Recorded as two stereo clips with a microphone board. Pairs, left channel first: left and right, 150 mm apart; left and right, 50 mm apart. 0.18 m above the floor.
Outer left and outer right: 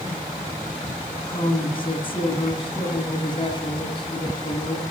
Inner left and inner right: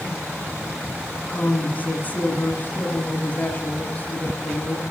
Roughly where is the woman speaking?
Left.